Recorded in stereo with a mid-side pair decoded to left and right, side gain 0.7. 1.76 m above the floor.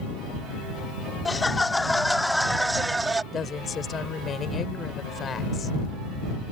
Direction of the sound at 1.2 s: 15° left.